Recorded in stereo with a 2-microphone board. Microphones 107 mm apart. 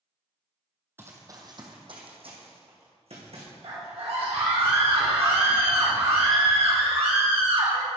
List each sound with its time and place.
1.0 s running footsteps: 20° right (ahead or behind), 1.7 m; by 3.5 s 75° right (ahead or behind), 3.5 m
3.6 s a scream: 60° right (ahead or behind), 1.5 m